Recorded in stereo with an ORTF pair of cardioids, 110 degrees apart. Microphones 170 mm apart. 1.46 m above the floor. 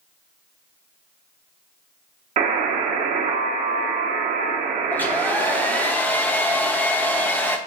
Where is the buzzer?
50° right, 1.3 m.